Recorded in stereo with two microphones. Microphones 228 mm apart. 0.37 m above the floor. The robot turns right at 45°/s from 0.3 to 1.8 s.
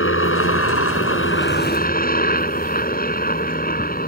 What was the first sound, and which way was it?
A helicopter, 70° left.